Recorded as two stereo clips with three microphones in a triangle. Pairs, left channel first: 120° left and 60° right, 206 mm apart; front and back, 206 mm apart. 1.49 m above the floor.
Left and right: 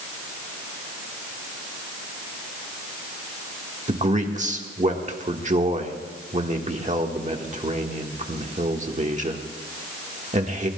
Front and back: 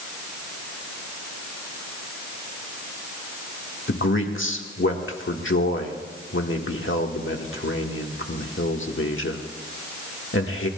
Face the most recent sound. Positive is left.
turn(degrees=-5)